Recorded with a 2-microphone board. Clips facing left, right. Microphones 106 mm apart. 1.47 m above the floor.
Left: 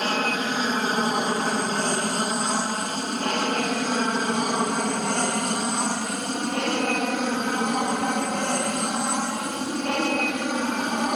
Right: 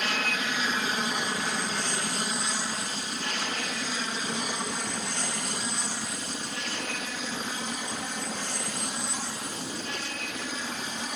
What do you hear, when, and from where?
0.0 s an aircraft: 40° left (ahead or behind); by 11.2 s 65° left (ahead or behind)